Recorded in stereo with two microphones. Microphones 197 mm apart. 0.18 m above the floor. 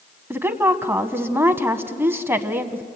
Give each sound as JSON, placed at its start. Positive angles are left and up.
{"t": 0.3, "sound": "a woman speaking", "side_deg": -15, "distance_m": 1.0}